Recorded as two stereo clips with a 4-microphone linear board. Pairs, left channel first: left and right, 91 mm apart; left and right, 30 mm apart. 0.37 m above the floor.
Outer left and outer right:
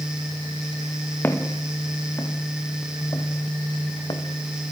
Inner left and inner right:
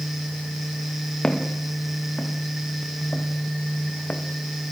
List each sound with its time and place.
1.2 s footsteps: 25° left (ahead or behind), 4.5 m; by 4.2 s 60° left (ahead or behind), 4.5 m